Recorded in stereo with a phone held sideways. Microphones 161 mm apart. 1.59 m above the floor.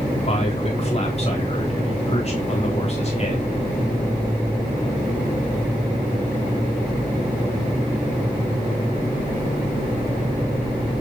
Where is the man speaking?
40° left (ahead or behind), 4 m.